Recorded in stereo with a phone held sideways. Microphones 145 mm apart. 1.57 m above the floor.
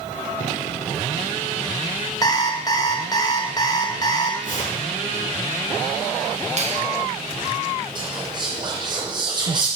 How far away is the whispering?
About 0.6 m.